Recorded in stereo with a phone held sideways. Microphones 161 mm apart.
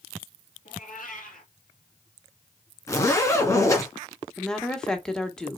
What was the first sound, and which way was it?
A cat meowing, 60° left (ahead or behind).